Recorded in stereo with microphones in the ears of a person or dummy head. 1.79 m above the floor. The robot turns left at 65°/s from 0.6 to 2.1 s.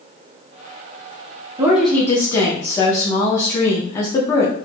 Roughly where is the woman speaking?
Behind.